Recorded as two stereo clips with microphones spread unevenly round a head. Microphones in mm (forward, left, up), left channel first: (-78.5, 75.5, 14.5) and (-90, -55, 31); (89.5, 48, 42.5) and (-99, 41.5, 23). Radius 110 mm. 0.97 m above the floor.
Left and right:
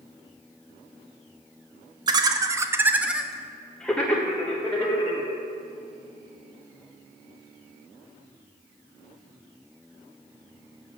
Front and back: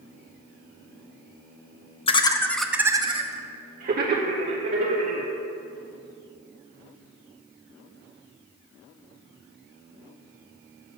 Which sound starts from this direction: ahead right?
Laughter, at 2.1 s.